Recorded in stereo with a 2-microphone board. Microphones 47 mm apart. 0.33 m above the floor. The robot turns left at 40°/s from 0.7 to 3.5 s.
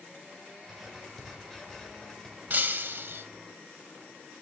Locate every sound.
0.7 s writing: 5° right (ahead or behind), 1.5 m; by 2.4 s 15° left (ahead or behind), 1.5 m
2.5 s breaking glass: 40° right (ahead or behind), 0.7 m; by 3.2 s 60° right (ahead or behind), 0.7 m